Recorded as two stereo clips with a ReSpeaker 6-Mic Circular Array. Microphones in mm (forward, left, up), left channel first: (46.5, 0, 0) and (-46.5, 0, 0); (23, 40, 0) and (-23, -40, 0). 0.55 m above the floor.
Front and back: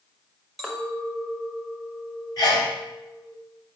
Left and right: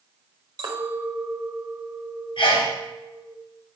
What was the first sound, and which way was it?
A clink, 90° right.